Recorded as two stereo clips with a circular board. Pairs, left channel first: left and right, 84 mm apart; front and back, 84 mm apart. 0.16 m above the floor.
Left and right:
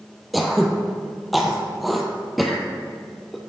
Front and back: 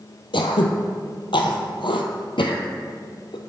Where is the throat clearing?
Straight ahead, 0.8 m.